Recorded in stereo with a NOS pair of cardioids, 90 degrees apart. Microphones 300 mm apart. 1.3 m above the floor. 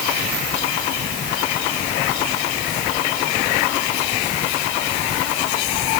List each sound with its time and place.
Only background noise.